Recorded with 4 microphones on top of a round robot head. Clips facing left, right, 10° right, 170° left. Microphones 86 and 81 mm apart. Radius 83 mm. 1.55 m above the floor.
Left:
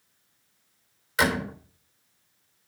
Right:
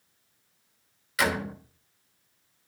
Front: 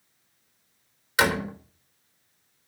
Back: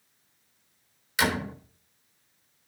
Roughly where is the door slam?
Ahead left.